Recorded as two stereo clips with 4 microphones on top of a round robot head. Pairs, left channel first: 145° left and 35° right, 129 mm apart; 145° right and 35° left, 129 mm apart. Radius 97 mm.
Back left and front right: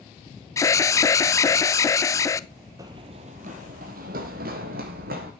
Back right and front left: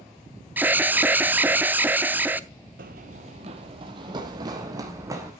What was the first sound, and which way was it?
An alarm, 100° left.